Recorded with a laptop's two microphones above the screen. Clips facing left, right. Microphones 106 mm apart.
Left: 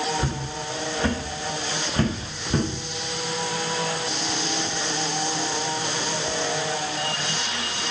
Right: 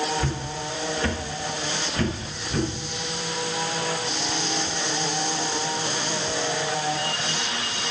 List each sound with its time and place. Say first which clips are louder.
0.2 s footsteps: even; 20° left (ahead or behind), 5 m; by 2.7 s 40° left (ahead or behind), 5 m